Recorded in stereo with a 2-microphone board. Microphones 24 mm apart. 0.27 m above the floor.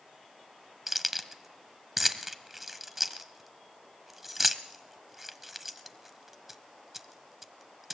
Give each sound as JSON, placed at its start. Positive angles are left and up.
{"t": 0.9, "sound": "keys jangling", "side_deg": -15, "distance_m": 1.0}